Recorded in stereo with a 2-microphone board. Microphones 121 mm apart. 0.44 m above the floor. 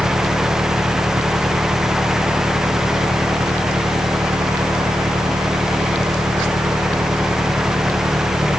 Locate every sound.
0.0 s an engine running: 30° right (ahead or behind)